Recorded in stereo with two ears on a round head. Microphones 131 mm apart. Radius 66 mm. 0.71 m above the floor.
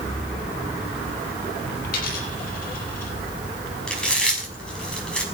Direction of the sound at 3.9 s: 5° left (ahead or behind).